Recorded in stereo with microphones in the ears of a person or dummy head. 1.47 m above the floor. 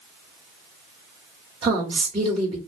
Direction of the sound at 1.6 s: 25° right (ahead or behind).